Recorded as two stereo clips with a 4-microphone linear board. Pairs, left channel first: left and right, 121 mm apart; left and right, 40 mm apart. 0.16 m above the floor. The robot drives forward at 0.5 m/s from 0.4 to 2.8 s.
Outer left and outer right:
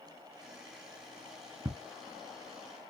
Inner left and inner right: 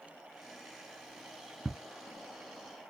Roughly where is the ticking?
Right.